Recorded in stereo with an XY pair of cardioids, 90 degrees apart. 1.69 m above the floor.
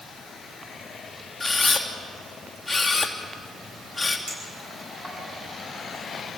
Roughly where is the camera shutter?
Ahead.